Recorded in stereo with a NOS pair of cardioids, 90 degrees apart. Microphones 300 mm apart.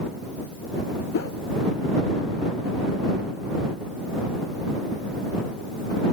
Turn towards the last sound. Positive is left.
turn(degrees=50)